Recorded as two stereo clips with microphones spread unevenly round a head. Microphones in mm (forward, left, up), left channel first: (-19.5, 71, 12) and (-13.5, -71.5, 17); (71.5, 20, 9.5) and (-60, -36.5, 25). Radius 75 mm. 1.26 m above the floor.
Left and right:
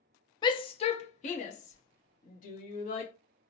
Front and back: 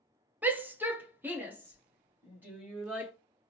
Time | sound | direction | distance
0.4 | a shout | 125° left | 0.6 m